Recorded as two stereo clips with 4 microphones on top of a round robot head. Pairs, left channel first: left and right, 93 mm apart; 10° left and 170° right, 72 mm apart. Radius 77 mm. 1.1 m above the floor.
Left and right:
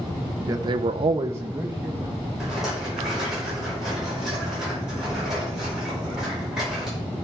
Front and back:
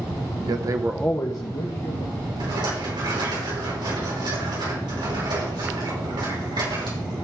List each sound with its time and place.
0.5 s a man speaking: 145° right, 0.9 m; by 2.1 s 5° right, 1.9 m
2.4 s a rattle: 175° right, 5.5 m